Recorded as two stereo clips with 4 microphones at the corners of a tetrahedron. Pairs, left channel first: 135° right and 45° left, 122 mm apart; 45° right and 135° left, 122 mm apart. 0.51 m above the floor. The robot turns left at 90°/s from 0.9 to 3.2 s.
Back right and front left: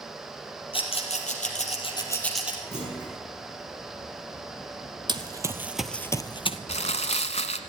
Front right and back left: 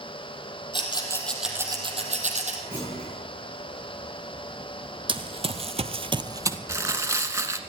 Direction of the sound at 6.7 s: 160° right.